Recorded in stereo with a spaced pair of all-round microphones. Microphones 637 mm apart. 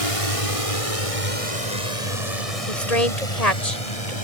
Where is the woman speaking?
80° left.